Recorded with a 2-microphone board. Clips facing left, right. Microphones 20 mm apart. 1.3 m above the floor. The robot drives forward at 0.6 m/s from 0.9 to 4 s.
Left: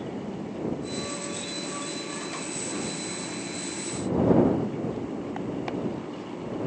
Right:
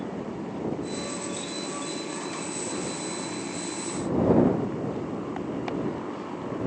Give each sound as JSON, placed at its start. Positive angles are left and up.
{"t": 0.0, "sound": "a motorcycle", "side_deg": -90}